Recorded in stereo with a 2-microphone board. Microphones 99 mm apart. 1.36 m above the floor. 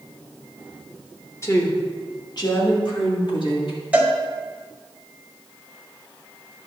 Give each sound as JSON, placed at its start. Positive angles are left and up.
{"t": 1.4, "sound": "a woman speaking", "side_deg": 30, "distance_m": 1.6}
{"t": 3.9, "sound": "a cowbell", "side_deg": -15, "distance_m": 1.3}